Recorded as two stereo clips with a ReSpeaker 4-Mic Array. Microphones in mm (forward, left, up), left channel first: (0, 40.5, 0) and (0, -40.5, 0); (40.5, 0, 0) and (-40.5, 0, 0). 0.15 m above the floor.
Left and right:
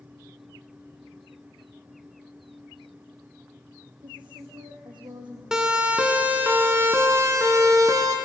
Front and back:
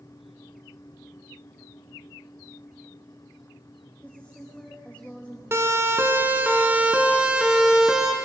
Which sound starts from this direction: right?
A woman speaking, at 4.0 s.